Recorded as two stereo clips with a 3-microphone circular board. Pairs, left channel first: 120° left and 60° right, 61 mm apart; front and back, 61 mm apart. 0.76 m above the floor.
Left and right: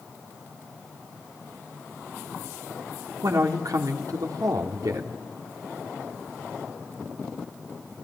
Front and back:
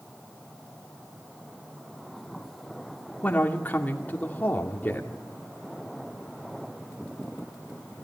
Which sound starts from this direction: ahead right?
A man speaking, at 3.2 s.